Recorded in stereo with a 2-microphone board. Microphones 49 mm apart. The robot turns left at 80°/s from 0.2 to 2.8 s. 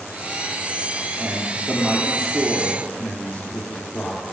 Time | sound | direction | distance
1.2 | a man speaking | 95° right | 2.5 m